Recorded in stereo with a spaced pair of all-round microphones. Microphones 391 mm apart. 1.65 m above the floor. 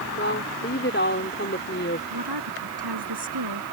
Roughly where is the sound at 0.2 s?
Left.